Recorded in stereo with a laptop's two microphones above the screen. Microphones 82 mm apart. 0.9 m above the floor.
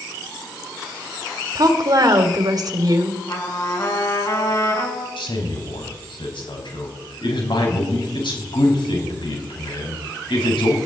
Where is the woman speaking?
55° right (ahead or behind), 2.5 m.